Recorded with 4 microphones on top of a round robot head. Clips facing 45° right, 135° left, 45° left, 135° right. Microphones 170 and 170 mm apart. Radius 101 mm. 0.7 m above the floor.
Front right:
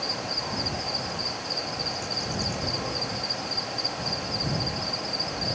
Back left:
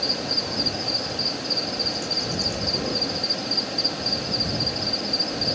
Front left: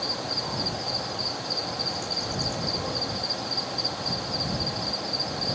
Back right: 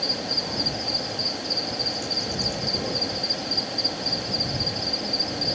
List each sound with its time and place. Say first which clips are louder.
0.0 s an insect: back left 4 dB, back right 2 dB; 165° left